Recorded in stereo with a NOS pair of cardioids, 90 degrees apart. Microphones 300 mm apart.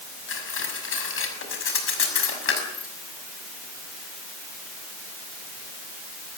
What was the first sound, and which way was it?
Cutlery clinking, 45° left.